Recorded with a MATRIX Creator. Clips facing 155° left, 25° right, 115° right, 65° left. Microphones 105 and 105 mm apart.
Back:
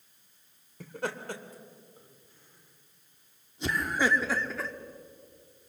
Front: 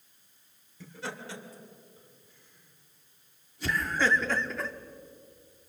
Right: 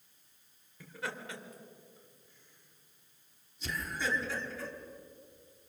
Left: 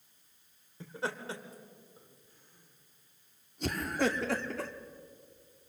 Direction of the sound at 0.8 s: 125° left.